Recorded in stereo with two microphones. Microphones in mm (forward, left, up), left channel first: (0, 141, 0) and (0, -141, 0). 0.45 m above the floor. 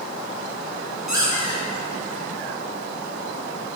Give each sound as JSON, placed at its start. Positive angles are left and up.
{"t": 1.1, "sound": "a squeak", "side_deg": -80, "distance_m": 6.5}